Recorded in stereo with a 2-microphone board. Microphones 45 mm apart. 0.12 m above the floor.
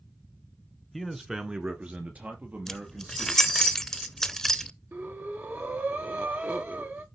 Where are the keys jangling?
10° left (ahead or behind), 0.8 m.